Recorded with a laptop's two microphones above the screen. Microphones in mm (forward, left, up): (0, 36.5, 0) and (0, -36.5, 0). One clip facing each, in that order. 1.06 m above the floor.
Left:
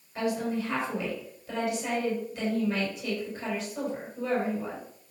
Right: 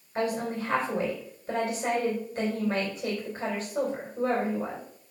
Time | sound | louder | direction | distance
0.1 | a woman speaking | even | 40° right (ahead or behind) | 4 m